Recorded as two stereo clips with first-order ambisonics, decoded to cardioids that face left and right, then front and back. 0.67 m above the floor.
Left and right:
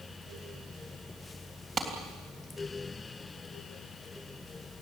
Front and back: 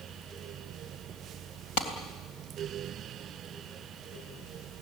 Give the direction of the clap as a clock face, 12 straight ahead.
1 o'clock.